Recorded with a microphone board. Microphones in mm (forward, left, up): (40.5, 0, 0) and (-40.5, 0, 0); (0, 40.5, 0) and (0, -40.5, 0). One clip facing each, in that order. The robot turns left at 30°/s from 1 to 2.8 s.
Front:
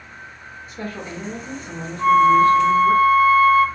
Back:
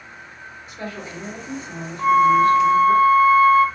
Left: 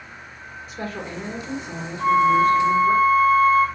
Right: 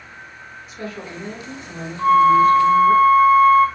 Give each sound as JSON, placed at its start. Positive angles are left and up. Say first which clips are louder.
{"t": 0.7, "sound": "a woman speaking", "louder": "front 2 dB, left 1 dB", "azimuth_deg": 40, "distance_m": 1.2}
{"t": 2.0, "sound": "a flute", "louder": "front 1 dB, right 4 dB", "azimuth_deg": -115, "distance_m": 1.3}